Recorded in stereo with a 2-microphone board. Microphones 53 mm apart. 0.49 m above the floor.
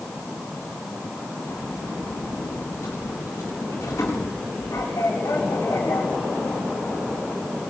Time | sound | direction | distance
1.5 | a sliding door | 85° left | 8.5 m